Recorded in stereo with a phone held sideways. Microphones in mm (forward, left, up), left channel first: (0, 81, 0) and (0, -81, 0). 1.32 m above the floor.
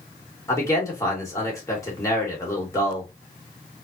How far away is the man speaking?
About 2 m.